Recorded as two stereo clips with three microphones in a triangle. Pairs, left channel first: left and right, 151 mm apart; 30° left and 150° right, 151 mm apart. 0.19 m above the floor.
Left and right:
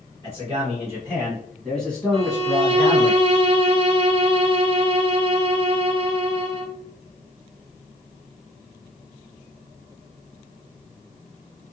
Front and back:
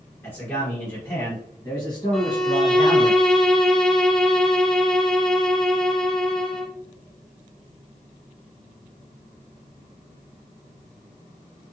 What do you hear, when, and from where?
0.2 s a man speaking: 35° right, 1.4 m; by 3.1 s 80° left, 1.2 m
2.1 s a violin: 55° right, 0.6 m